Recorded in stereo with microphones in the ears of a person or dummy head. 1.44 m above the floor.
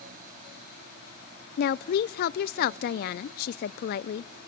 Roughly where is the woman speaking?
Left.